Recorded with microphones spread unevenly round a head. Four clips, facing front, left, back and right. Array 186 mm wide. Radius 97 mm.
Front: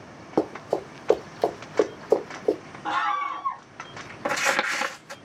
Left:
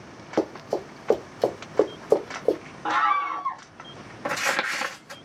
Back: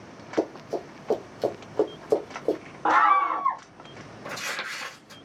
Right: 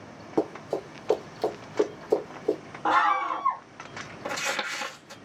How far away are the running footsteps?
About 1.9 m.